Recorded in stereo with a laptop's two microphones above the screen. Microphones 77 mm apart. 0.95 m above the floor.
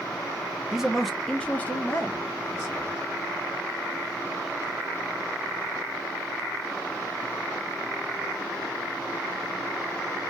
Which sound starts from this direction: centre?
A man speaking, at 0.7 s.